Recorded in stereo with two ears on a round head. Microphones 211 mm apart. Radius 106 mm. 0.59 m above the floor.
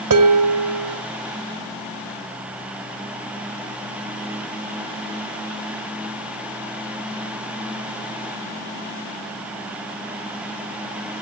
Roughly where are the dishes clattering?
Right.